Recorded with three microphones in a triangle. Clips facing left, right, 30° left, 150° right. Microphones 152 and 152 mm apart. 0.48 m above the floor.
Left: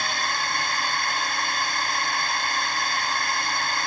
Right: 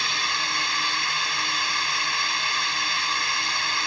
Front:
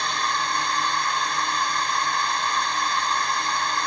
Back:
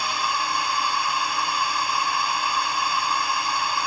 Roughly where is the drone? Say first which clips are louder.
Left 3 dB, even; behind left.